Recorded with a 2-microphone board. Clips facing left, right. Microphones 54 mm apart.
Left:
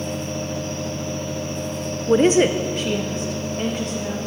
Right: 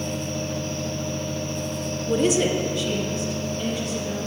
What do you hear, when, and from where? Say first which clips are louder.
2.1 s a woman speaking: left 6 dB; 40° left (ahead or behind), 0.7 m; by 4.2 s 55° left (ahead or behind), 2.5 m